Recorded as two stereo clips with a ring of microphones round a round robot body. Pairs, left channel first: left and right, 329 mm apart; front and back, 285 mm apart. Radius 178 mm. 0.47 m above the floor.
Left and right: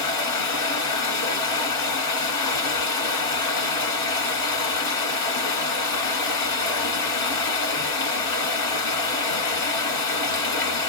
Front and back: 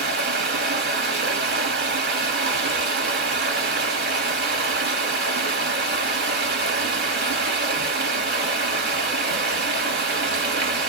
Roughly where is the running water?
Behind left.